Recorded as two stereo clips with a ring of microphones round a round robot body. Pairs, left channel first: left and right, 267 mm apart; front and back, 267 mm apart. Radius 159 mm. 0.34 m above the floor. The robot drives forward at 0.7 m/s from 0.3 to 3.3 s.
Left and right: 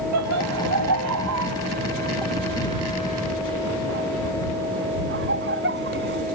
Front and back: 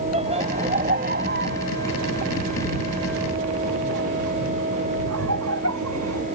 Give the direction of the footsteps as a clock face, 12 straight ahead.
No footsteps in this recording.